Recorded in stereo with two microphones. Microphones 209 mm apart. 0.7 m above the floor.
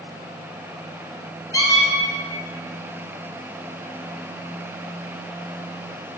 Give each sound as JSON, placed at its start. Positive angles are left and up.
{"t": 1.5, "sound": "a squeak", "side_deg": 15, "distance_m": 0.7}